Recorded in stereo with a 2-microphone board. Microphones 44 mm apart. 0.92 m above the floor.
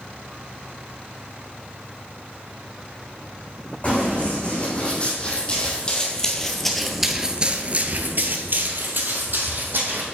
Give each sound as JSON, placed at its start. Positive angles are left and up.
{"t": 3.8, "sound": "running footsteps", "side_deg": 30, "distance_m": 3.5}